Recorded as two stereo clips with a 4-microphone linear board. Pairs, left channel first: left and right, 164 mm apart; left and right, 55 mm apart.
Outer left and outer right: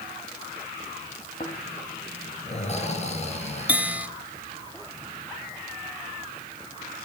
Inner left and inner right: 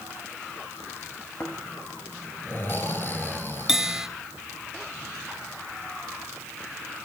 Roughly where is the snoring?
Left.